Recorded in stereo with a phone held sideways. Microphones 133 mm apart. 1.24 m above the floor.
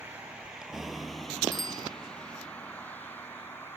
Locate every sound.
0.0 s a vehicle: 15° right (ahead or behind); by 3.8 s 15° left (ahead or behind)
1.5 s a bicycle bell: 35° left (ahead or behind)